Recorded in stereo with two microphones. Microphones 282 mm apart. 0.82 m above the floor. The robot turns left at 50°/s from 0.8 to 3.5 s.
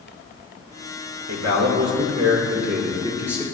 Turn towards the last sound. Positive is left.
turn(degrees=175)